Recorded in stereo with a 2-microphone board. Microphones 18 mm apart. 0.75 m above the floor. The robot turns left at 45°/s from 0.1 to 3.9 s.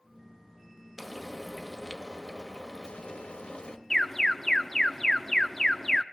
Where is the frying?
170° right, 1.3 m; by 3.8 s 65° left, 1.3 m.